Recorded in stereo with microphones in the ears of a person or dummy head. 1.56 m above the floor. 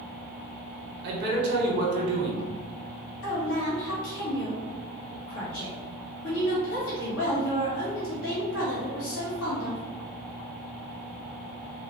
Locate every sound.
1.0 s a man speaking: 55° right (ahead or behind), 1.1 m
3.2 s a woman speaking: 75° left (ahead or behind), 1.6 m